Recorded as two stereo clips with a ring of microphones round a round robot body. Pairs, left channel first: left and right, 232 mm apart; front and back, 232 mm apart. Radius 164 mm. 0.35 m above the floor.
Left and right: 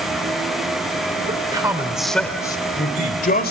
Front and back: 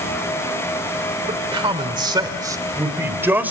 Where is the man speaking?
130° right, 1.6 m; by 3.5 s 100° left, 1.8 m.